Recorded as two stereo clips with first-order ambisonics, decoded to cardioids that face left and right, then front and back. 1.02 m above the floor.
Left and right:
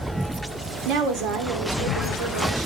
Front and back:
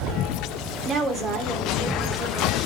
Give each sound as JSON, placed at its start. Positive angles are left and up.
{"t": 0.8, "sound": "a woman speaking", "azimuth_deg": -120, "distance_m": 3.0}